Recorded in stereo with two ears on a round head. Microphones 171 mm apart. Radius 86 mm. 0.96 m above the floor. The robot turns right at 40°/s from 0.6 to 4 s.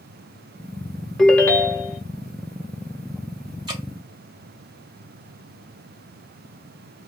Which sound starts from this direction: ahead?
A ringtone, at 1.2 s.